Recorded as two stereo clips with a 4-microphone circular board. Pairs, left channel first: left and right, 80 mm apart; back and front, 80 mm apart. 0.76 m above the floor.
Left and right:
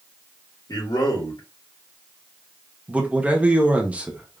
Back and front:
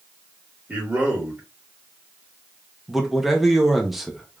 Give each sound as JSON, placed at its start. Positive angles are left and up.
{"t": 0.7, "sound": "a man speaking", "azimuth_deg": 70, "distance_m": 2.5}
{"t": 2.9, "sound": "a man speaking", "azimuth_deg": -75, "distance_m": 0.9}